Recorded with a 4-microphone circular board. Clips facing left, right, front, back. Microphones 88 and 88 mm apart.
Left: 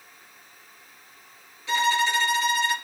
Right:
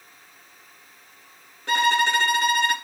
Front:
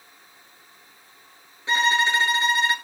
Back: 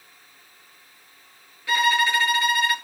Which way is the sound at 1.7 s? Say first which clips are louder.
Right 2 dB, back 1 dB; 60° right.